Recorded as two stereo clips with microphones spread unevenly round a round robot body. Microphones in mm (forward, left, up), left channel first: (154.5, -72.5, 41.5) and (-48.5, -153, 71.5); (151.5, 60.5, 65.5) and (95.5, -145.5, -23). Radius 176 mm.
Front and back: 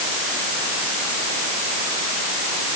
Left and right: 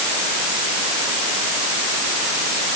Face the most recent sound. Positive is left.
No sound to turn to.